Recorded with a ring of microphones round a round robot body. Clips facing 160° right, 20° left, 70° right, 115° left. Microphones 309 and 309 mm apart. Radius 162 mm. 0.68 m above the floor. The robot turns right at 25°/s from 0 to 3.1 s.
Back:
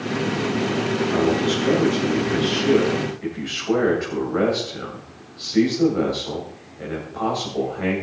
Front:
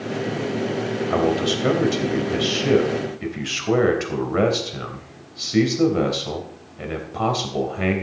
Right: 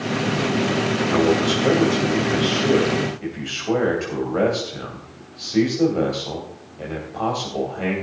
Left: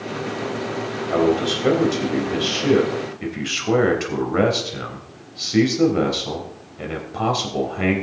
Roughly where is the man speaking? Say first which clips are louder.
Even, left 1 dB; ahead.